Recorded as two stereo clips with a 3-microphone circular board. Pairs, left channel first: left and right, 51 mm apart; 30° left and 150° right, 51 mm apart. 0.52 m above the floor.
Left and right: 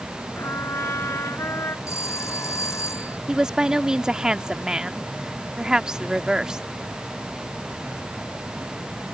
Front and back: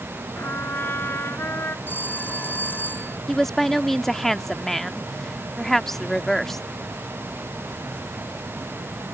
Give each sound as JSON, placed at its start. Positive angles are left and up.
{"t": 0.4, "sound": "a trumpet", "azimuth_deg": 65}
{"t": 1.9, "sound": "a phone ringing", "azimuth_deg": 80}
{"t": 3.3, "sound": "a woman speaking", "azimuth_deg": -45}